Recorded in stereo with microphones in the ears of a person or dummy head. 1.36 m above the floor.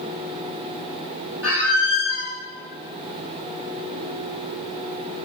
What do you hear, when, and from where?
1.4 s a squeak: 15° right (ahead or behind), 1.0 m